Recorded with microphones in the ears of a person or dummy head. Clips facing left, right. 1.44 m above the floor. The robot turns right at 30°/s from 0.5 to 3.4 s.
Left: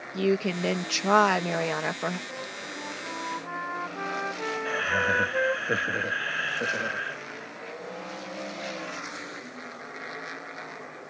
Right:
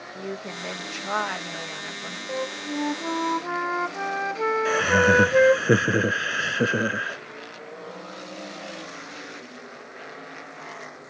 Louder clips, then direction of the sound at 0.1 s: Left 10 dB; 50° left.